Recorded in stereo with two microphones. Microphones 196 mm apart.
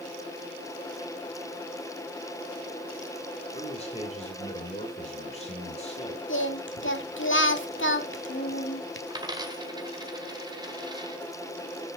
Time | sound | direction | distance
3.5 | a man speaking | 35° left (ahead or behind) | 2.5 m
6.3 | singing | 80° left | 1.4 m
9.1 | a dropped coin | 20° right (ahead or behind) | 1.6 m